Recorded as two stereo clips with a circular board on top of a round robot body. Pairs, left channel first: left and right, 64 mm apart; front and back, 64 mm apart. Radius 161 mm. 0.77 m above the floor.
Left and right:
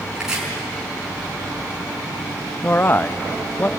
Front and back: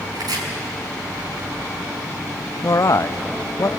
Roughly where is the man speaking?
Ahead left.